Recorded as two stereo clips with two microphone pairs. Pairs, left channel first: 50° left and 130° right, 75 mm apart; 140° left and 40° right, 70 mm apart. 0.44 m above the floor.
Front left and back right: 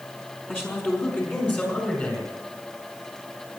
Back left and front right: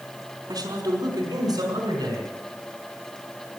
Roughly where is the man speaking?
Ahead.